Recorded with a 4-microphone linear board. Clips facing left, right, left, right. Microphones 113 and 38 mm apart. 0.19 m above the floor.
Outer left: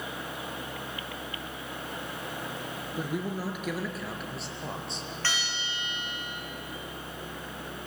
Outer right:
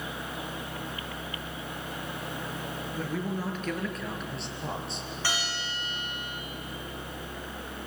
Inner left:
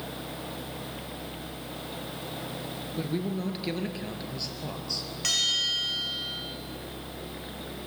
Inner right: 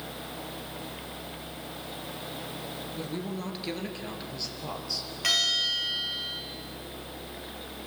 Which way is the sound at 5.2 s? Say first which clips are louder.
Outer right 2 dB, inner right 1 dB; 10° right (ahead or behind).